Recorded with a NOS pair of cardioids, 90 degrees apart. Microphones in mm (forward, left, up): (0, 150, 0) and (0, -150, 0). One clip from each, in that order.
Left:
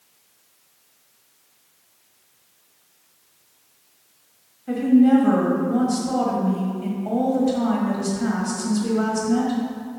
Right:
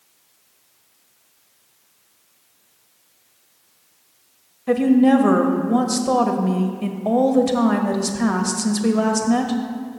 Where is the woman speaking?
55° right, 1.1 m.